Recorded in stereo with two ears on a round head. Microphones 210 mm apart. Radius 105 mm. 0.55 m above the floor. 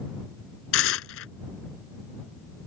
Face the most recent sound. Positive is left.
turn(degrees=60)  # may be behind; listen again after turning